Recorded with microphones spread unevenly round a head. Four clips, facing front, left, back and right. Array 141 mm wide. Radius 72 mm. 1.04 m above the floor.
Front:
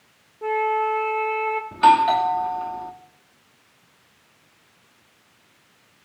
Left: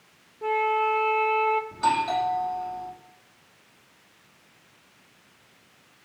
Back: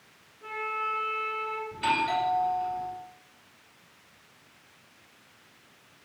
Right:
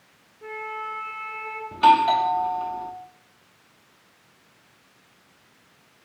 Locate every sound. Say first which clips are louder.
0.4 s a flute: left 10 dB, front 12 dB; 35° left, 4 m
1.7 s a doorbell: right 7 dB, front 12 dB; 30° right, 3 m